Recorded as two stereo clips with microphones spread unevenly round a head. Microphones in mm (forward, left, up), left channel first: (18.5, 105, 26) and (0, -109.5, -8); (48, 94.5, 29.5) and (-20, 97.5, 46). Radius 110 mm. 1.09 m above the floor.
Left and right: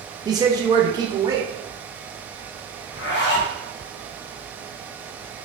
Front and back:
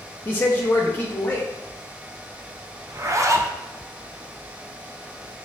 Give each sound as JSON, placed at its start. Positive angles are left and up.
{"t": 0.2, "sound": "a man speaking", "azimuth_deg": -40, "distance_m": 0.7}
{"t": 2.9, "sound": "a zipper", "azimuth_deg": 130, "distance_m": 0.6}